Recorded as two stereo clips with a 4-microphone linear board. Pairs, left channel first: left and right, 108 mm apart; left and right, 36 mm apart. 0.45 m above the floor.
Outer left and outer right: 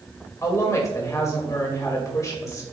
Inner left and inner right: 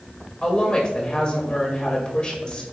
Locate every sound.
0.4 s a woman speaking: 30° left (ahead or behind), 1.8 m